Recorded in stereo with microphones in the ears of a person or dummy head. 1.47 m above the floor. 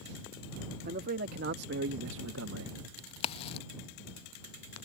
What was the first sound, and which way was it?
A man speaking, 50° right (ahead or behind).